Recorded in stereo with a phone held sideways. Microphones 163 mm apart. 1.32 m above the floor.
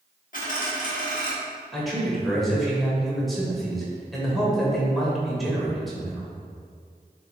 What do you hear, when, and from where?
0.3 s a dropped coin: 55° left (ahead or behind), 1.3 m
1.7 s a man speaking: centre (ahead or behind), 1.2 m